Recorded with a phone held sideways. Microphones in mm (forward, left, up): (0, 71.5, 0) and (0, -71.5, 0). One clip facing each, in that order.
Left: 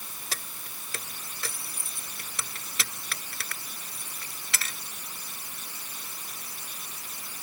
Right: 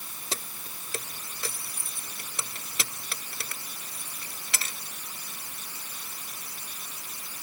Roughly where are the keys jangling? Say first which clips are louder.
Right 4 dB; right.